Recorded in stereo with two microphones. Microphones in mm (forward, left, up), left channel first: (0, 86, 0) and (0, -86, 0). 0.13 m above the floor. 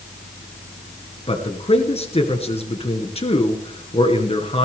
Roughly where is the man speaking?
Left.